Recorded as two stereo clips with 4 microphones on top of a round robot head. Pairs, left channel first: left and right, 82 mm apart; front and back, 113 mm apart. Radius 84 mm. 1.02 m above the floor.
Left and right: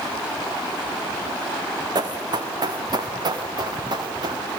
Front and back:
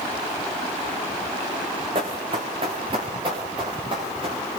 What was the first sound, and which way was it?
Running footsteps, 125° right.